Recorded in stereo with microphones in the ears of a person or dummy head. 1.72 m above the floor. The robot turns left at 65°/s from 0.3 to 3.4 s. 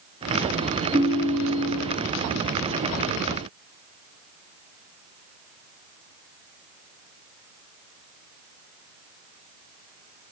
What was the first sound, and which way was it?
A ringtone, 25° right.